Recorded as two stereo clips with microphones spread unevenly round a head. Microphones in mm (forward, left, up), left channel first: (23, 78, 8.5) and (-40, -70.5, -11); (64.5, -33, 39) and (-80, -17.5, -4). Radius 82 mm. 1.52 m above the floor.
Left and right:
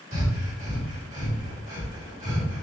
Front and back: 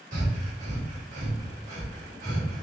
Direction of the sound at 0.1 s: 160° right.